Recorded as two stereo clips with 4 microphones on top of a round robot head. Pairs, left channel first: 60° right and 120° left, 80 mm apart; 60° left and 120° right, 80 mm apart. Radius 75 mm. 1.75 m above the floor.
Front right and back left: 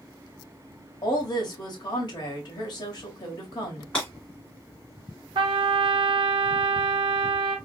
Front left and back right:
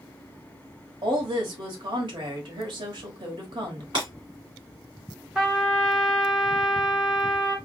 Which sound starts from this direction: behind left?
A trumpet, at 5.3 s.